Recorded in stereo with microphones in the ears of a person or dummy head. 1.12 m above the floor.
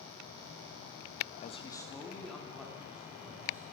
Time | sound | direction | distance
1.4 | a man speaking | 45° left (ahead or behind) | 1.0 m